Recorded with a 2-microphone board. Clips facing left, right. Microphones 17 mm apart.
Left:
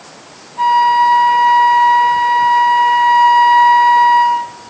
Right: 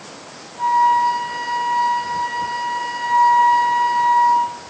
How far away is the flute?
About 0.6 m.